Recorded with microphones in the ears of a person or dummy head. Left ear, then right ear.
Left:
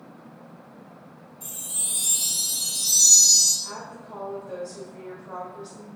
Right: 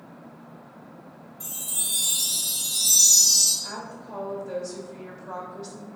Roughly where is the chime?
Right.